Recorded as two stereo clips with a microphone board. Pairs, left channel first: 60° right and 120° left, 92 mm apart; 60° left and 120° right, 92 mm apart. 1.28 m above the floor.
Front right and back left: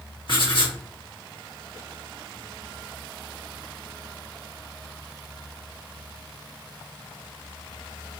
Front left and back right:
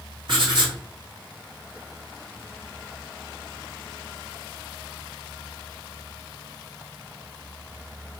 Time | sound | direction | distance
0.3 | writing | 90° right | 1.5 m